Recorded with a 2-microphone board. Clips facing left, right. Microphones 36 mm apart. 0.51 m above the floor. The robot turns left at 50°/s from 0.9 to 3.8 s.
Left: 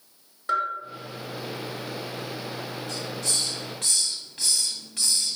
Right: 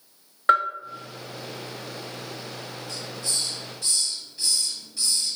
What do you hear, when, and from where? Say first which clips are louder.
0.5 s a bell: right 6 dB; 45° right (ahead or behind), 0.7 m
2.9 s a hiss: left 1 dB; 105° left, 1.2 m; by 5.4 s 60° left, 1.2 m